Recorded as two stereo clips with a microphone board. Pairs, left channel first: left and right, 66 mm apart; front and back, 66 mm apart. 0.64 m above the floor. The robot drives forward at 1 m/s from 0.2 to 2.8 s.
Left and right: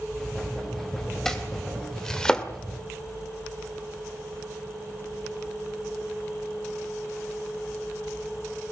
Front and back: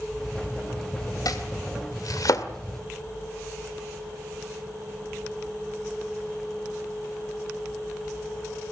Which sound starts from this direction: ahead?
Chopping, at 1.2 s.